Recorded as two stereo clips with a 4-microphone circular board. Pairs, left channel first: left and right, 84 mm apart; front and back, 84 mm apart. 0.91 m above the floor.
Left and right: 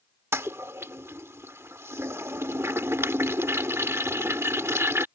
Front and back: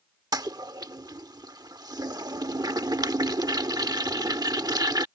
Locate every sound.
0.3 s a toilet flushing: 145° right